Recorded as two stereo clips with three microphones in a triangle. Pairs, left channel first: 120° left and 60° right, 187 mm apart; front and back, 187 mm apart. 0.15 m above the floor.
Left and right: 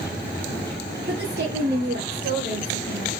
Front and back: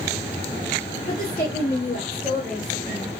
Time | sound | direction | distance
1.1 | a woman speaking | 40° right | 3 m